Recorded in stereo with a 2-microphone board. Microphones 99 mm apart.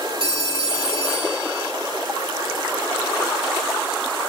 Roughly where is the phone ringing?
Right.